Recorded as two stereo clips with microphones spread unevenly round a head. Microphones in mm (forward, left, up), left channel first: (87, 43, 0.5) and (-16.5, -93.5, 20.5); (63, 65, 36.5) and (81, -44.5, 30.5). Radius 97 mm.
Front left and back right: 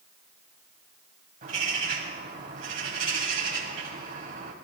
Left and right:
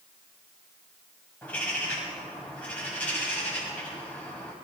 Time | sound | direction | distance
1.4 | a bird | straight behind | 2 m